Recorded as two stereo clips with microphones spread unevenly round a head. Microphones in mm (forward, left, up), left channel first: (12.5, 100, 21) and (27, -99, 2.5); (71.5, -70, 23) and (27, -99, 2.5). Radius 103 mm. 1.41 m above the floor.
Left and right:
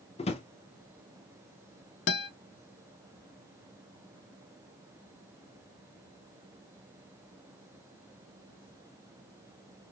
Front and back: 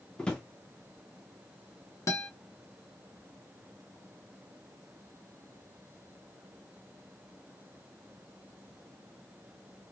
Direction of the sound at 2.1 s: 65° left.